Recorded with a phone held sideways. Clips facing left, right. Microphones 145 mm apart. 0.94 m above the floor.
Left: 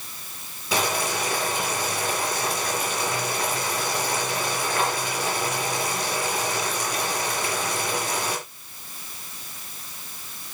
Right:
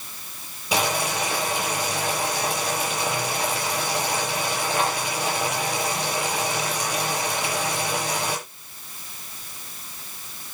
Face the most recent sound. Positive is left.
turn(degrees=-10)  # may be behind; listen again after turning